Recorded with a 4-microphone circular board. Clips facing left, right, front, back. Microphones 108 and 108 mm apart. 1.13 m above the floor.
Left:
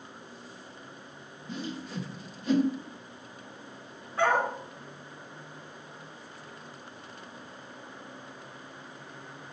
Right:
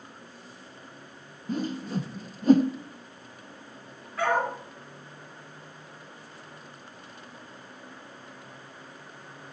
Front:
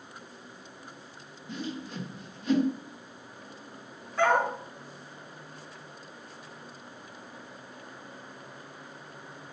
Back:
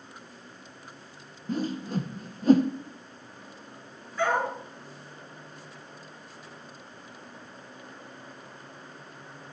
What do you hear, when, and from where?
1.5 s a whoosh: 130° right, 0.8 m
4.2 s a dog barking: 30° left, 3.5 m